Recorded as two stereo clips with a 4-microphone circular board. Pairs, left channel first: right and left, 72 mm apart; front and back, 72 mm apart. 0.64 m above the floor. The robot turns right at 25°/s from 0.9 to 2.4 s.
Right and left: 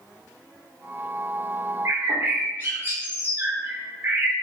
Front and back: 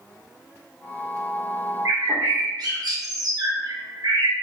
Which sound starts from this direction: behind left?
A bird, at 1.9 s.